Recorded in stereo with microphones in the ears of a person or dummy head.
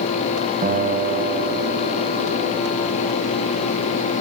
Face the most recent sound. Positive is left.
turn(degrees=-40)  # may be behind; listen again after turning